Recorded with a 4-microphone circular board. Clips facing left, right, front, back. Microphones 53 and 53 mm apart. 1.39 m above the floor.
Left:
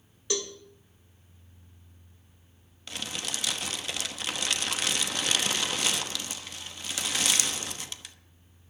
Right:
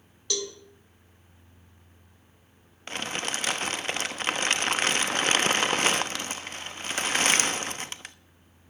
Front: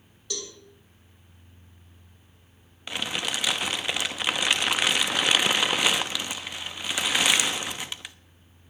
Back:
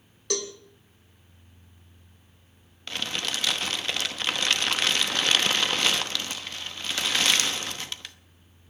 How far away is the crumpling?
About 0.9 m.